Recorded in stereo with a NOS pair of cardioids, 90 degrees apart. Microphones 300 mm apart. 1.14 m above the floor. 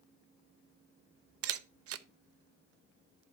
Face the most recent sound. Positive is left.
turn(degrees=-50)